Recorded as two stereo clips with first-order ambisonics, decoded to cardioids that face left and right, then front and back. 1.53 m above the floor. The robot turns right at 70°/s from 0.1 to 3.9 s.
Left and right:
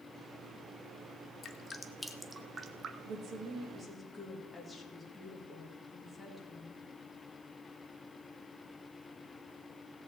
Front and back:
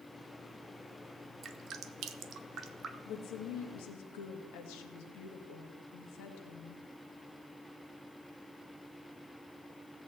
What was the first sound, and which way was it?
Dripping, 130° left.